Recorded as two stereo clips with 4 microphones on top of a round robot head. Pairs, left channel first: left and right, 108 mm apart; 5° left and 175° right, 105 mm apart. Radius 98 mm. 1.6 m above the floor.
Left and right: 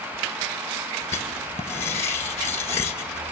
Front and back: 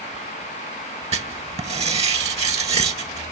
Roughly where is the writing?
Behind.